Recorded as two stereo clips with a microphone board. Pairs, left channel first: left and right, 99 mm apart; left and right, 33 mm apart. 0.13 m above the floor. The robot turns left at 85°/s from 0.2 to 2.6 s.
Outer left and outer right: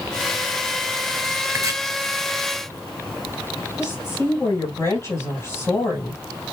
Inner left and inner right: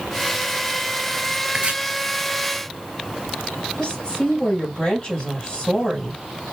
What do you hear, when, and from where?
1.5 s chopping: 35° right (ahead or behind), 2 m
3.8 s a woman speaking: 30° left (ahead or behind), 3 m